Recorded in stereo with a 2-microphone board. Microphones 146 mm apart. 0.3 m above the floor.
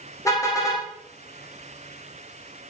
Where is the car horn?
20° left (ahead or behind), 7 m.